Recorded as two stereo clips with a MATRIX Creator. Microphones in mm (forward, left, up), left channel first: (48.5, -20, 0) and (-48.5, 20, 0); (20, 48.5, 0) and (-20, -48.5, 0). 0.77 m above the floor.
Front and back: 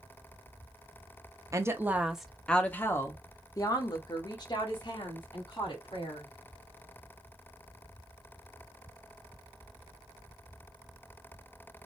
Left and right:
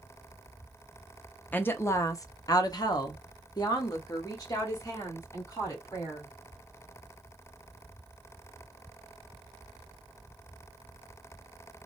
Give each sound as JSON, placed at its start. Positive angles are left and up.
{"t": 1.5, "sound": "a woman speaking", "azimuth_deg": 125, "distance_m": 0.7}